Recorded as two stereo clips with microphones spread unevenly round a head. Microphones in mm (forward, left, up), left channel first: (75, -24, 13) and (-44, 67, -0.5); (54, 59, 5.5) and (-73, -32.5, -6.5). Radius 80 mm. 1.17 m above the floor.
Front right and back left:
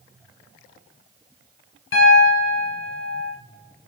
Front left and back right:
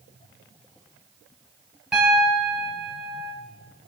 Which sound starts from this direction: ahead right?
A piano, at 1.9 s.